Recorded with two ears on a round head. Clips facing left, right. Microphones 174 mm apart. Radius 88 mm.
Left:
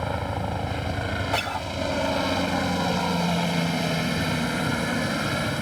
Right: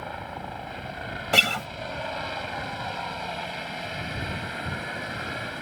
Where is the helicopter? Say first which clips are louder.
Left 7 dB; 60° left (ahead or behind).